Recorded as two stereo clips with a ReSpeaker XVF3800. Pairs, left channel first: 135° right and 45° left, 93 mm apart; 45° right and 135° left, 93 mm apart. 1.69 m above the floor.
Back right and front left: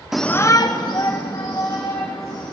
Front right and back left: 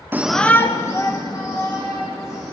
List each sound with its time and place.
0.1 s a shout: 120° left, 0.6 m; by 2.5 s 95° right, 3.5 m